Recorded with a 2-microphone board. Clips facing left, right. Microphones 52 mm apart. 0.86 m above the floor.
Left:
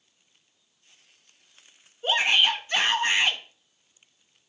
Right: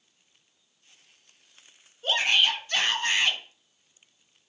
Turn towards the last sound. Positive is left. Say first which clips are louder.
# left 2 dB
turn(degrees=20)  # may be behind; listen again after turning